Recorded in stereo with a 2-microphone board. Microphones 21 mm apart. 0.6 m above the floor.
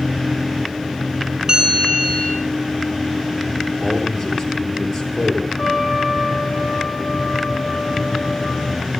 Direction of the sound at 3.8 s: 55° left (ahead or behind).